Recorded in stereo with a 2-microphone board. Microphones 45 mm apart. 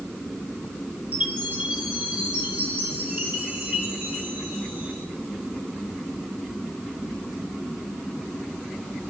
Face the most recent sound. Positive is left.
turn(degrees=-35)  # may be behind; listen again after turning